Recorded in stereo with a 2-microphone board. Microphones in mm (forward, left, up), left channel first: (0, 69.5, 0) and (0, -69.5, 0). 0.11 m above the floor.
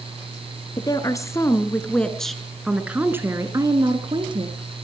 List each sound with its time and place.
0.8 s a woman speaking: 30° left (ahead or behind), 2.0 m; by 4.5 s 40° right (ahead or behind), 2 m